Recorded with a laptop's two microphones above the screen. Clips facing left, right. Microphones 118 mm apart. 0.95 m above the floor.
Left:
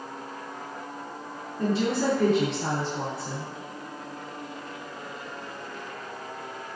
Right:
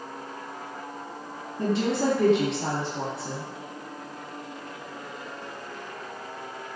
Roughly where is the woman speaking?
Right.